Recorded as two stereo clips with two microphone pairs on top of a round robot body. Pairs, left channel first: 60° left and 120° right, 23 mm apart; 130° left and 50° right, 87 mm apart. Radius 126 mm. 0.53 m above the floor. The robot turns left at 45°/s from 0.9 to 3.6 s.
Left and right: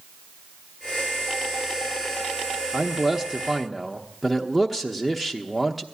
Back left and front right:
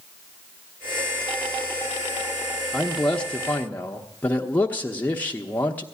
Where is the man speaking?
165° right, 0.9 m; by 5.8 s 160° left, 0.9 m.